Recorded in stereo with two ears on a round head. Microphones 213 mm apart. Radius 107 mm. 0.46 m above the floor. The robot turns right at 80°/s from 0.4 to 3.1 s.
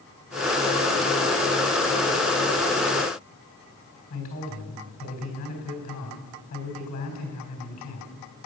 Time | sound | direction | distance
4.1 | a man speaking | 35° left (ahead or behind) | 4 m